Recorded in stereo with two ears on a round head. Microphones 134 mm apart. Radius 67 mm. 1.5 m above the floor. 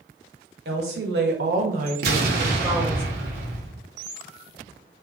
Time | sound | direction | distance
0.7 | a woman speaking | 70° right (ahead or behind) | 0.9 m
2.0 | an explosion | 65° right (ahead or behind) | 0.6 m